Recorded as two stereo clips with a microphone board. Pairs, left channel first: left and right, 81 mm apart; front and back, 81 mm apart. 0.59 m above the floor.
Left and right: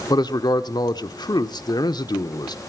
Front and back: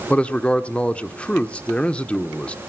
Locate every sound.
0.1 s a man speaking: 75° left, 1.1 m